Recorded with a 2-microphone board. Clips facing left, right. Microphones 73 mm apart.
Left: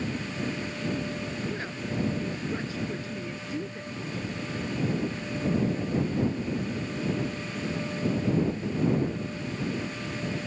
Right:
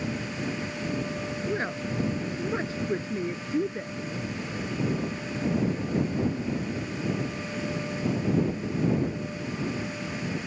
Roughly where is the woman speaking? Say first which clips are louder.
Right 3 dB; right.